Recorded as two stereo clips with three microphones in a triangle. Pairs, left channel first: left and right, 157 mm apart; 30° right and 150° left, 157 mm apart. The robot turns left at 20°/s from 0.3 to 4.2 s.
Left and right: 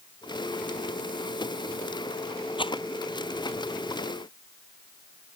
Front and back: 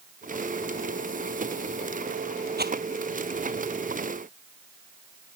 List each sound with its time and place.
2.6 s a rattle: 150° left; by 2.8 s 145° left